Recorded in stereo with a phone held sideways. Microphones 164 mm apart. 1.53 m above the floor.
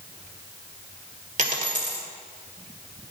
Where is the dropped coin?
50° right (ahead or behind), 1.7 m.